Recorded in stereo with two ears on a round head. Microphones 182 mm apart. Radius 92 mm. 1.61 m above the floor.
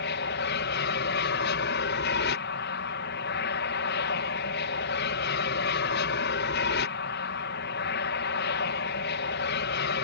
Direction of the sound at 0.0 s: 55° left (ahead or behind).